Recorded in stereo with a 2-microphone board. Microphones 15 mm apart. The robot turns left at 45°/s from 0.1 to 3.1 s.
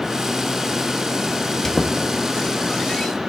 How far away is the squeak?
About 0.8 m.